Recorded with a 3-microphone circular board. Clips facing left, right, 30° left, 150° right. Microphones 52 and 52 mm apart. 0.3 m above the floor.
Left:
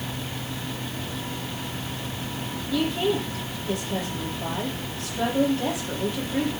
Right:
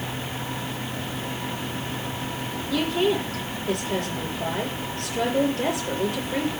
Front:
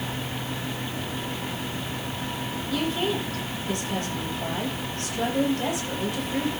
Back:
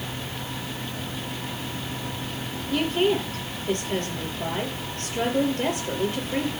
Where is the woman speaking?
100° right, 5.5 m.